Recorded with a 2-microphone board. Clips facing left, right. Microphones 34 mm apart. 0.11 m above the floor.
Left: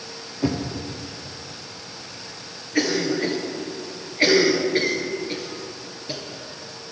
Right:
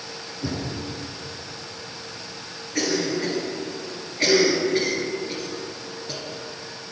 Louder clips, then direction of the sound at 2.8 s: Left 2 dB; 25° left (ahead or behind).